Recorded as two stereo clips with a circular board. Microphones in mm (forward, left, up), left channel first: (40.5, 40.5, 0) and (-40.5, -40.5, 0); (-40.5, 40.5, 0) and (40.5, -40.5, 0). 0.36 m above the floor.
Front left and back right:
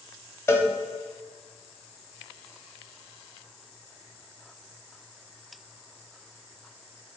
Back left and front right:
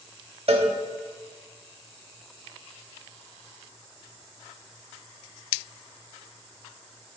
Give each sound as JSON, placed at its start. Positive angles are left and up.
{"t": 0.5, "sound": "a cowbell", "azimuth_deg": -20, "distance_m": 0.6}